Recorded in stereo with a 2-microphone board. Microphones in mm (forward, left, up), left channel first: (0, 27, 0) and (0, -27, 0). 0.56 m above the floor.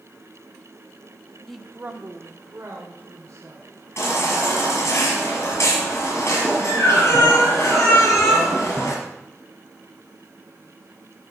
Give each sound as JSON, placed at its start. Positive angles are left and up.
{"t": 1.5, "sound": "a woman speaking", "side_deg": 10, "distance_m": 0.8}
{"t": 4.0, "sound": "a baby crying", "side_deg": 55, "distance_m": 5.0}